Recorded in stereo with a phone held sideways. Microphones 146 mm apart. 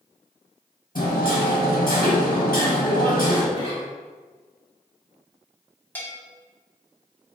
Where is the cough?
35° left (ahead or behind), 1.6 m.